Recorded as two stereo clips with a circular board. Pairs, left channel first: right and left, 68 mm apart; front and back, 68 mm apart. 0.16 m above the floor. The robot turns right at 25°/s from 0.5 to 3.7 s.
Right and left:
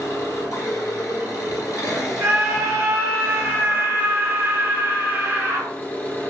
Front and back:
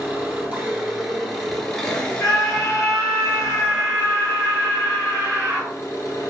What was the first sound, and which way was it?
An engine running, 115° right.